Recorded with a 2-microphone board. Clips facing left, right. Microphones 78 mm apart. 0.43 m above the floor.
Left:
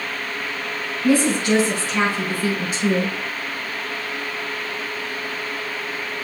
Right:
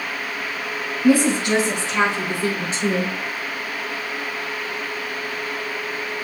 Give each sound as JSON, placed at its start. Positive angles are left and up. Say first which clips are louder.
{"t": 1.0, "sound": "a woman speaking", "louder": "right 1 dB", "side_deg": -20, "distance_m": 5.5}